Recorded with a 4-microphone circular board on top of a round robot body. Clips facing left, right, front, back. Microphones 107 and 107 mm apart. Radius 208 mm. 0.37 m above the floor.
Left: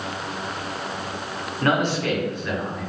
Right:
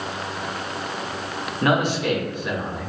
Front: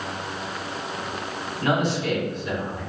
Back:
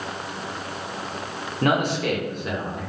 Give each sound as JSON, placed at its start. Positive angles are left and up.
{"t": 1.6, "sound": "a man speaking", "azimuth_deg": -165, "distance_m": 1.6}